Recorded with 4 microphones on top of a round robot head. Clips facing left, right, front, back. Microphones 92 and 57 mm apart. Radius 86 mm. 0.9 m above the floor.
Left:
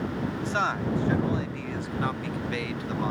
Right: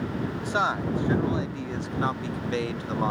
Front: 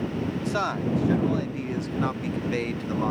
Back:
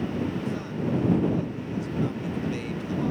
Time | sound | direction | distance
0.4 | a man speaking | 15° right | ?